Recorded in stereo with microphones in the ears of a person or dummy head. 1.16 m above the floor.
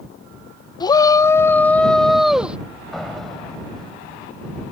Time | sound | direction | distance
0.8 | a shout | 25° left (ahead or behind) | ?
2.9 | a door slam | centre (ahead or behind) | ?